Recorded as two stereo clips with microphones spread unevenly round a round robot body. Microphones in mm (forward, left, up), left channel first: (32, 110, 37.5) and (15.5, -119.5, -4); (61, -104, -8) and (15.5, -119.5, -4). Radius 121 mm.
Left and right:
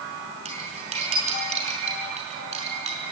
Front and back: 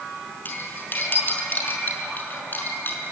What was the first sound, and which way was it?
Cutlery clinking, 30° right.